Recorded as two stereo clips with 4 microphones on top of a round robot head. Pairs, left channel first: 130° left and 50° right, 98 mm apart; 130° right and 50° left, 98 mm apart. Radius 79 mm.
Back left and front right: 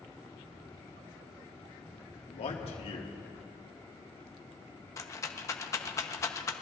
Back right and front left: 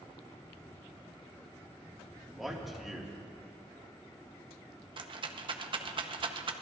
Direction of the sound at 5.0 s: 75° left.